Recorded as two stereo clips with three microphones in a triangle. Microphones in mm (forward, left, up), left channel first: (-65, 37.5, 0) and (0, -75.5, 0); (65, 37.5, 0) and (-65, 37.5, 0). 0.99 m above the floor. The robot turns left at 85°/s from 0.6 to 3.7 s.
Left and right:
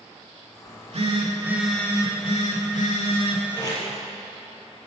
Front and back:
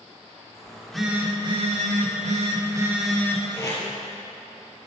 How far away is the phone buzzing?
About 1.9 m.